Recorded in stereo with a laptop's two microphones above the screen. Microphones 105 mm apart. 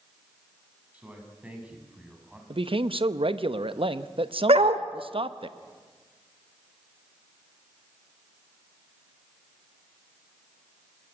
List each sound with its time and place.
0.9 s a man speaking: 15° right (ahead or behind), 6.5 m; by 2.4 s 10° right (ahead or behind), 6 m
2.5 s a man speaking: 60° right (ahead or behind), 0.8 m
4.5 s a dog barking: 65° right (ahead or behind), 1.3 m